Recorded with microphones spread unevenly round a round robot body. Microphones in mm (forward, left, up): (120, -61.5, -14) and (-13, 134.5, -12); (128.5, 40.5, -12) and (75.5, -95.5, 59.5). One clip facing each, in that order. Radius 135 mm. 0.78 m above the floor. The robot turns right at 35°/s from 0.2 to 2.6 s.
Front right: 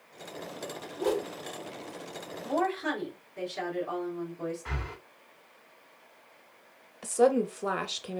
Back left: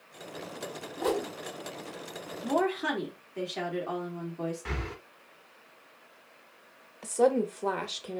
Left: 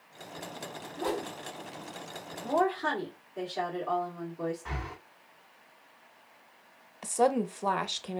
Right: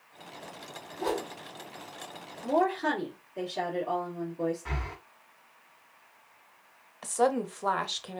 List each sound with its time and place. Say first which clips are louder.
1.0 s a whoosh: front right 1 dB, right 1 dB; 105° left, 1.9 m; by 1.3 s 120° left, 1.9 m
2.4 s a woman speaking: back left 2 dB, right 2 dB; 150° left, 1.8 m; by 4.6 s 155° left, 1.8 m
4.7 s breathing: back left 4 dB, right 1 dB; 175° left, 0.7 m
7.0 s a woman speaking: front right 1 dB, even; 20° left, 0.6 m